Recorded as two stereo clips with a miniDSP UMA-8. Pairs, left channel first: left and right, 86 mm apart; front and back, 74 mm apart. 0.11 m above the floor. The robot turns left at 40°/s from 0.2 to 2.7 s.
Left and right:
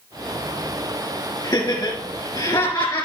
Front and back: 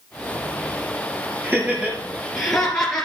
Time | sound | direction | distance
1.4 | laughter | 125° left | 2.5 m